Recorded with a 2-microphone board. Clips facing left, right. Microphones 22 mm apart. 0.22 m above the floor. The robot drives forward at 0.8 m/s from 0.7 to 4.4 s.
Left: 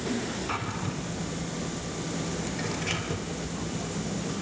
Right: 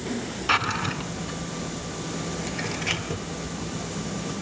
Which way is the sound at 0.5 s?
65° right (ahead or behind).